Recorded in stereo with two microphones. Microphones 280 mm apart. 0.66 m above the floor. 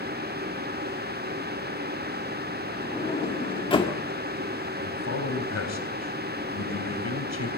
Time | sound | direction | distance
2.8 | a sliding door | 20° left (ahead or behind) | 1.8 m
4.8 | a man speaking | 65° left (ahead or behind) | 3.5 m